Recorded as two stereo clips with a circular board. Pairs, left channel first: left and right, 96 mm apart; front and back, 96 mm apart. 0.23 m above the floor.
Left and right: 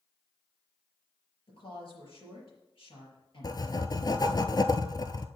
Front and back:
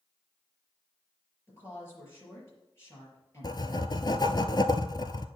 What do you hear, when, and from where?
1.5 s a woman speaking: 60° left, 5 m
3.4 s writing: 40° left, 0.6 m